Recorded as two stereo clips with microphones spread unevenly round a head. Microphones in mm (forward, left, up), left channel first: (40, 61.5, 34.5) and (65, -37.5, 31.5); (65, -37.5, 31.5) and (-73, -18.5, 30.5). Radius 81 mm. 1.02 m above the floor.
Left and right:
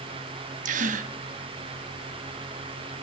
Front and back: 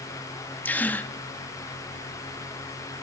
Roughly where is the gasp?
Right.